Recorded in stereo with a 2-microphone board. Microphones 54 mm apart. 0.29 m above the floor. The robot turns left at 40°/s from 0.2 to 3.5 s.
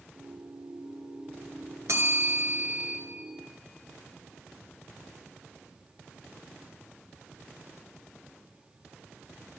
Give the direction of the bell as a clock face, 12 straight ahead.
4 o'clock.